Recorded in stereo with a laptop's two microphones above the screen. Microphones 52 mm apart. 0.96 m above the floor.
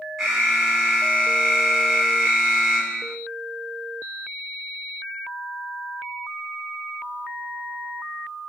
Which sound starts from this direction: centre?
An alarm, at 0.2 s.